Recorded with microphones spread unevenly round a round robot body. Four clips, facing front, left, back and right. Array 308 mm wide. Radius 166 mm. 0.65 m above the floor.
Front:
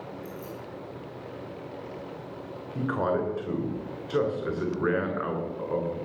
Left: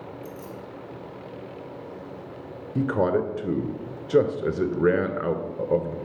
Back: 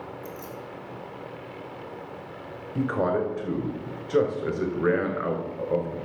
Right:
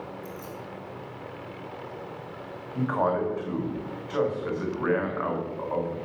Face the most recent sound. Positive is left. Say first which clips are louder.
# left 3 dB, back 2 dB
turn(degrees=100)